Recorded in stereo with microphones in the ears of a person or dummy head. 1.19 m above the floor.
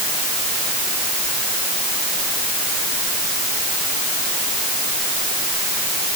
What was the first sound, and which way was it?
Only background noise.